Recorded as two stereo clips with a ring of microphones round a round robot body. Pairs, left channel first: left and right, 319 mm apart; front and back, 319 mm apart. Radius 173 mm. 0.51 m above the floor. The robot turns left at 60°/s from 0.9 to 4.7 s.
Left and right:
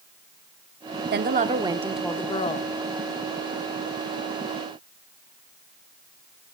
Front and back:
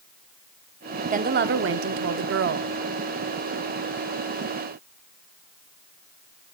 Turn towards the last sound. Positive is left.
turn(degrees=20)